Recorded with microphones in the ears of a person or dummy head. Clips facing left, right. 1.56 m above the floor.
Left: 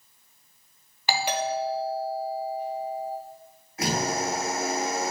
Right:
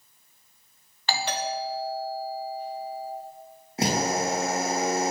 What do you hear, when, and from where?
1.1 s a doorbell: 15° left (ahead or behind), 1.0 m
3.8 s a drill: 25° right (ahead or behind), 1.8 m